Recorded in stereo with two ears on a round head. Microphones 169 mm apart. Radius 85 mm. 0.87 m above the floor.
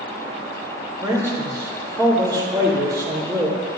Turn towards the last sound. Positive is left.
turn(degrees=-25)  # may be behind; listen again after turning